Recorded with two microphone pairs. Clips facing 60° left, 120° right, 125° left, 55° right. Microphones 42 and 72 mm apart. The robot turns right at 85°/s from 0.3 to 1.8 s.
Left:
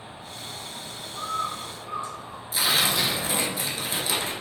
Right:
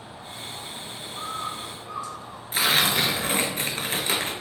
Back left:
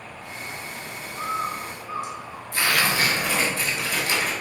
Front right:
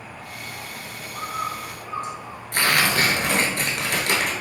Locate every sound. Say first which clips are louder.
0.0 s an insect: right 1 dB, even; 80° right, 1.6 m; by 4.4 s 50° left, 1.6 m
1.1 s a bird: left 3 dB, back left 1 dB; 65° right, 1.2 m; by 2.4 s 10° right, 1.2 m
2.5 s tearing paper: right 2 dB, front right 2 dB; 70° right, 0.7 m